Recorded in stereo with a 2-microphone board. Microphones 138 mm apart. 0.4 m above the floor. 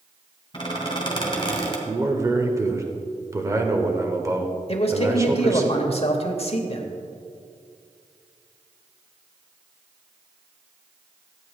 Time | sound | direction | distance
0.5 | a squeak | 35° left (ahead or behind) | 1.8 m
1.9 | a man speaking | 25° right (ahead or behind) | 1.0 m
4.7 | a man speaking | 45° left (ahead or behind) | 1.1 m